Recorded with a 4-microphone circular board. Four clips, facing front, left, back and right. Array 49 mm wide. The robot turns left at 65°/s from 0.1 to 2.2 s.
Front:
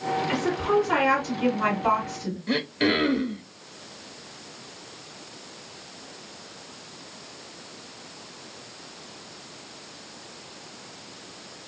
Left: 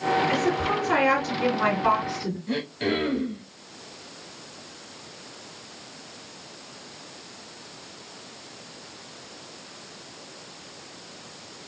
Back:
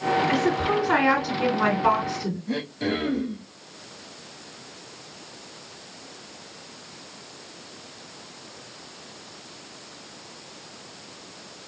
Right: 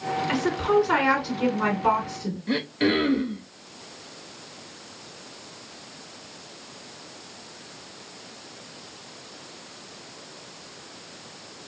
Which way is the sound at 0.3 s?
85° right.